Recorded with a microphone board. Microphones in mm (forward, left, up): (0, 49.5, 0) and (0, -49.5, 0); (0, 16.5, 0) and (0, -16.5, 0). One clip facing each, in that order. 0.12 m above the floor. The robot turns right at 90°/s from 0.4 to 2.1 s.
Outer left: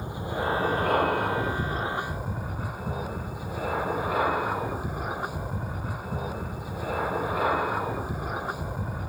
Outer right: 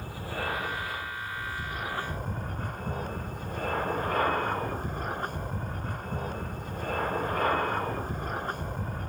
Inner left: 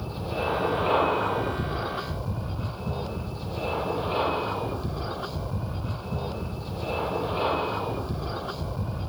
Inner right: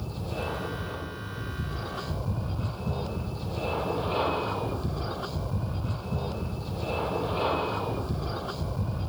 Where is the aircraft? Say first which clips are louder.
Outer left 5 dB, inner left 4 dB; 20° left; by 9.1 s 175° left.